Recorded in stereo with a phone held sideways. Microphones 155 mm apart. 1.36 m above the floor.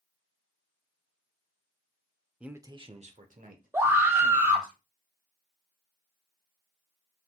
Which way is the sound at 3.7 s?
15° right (ahead or behind).